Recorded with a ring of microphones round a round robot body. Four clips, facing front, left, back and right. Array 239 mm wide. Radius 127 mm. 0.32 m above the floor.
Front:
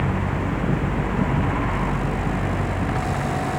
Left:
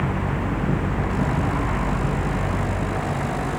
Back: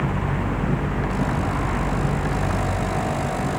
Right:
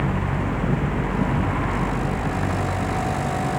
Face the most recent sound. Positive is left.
No sound to turn to.